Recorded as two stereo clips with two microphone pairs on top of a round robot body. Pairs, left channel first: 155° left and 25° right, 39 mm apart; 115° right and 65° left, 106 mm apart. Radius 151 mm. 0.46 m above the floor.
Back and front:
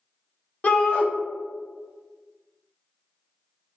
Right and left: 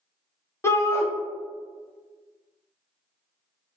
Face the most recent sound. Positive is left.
turn(degrees=-170)